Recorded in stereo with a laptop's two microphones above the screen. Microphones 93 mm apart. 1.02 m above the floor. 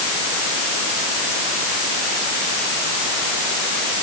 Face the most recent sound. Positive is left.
No sound to turn to.